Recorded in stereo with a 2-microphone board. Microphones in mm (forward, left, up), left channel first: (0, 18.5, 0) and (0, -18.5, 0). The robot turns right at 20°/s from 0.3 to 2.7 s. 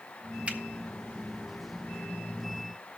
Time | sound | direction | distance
0.5 | a finger snap | 35° right (ahead or behind) | 1.2 m